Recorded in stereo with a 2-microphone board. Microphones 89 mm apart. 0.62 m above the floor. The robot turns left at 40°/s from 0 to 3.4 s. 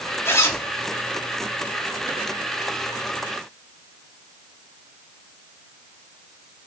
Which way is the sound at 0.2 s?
30° left (ahead or behind).